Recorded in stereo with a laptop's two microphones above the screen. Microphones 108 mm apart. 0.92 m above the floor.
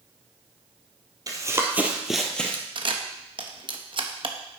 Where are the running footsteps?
35° right (ahead or behind), 1.7 m; by 2.6 s 15° left (ahead or behind), 1.8 m.